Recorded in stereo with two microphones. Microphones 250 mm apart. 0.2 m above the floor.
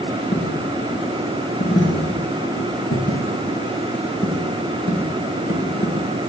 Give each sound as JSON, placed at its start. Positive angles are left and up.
{"t": 0.3, "sound": "a dropped coin", "side_deg": 50, "distance_m": 7.5}